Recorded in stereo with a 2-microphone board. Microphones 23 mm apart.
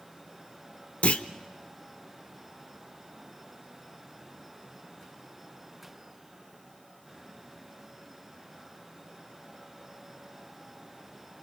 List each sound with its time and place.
1.0 s a clunk: 70° left (ahead or behind), 0.8 m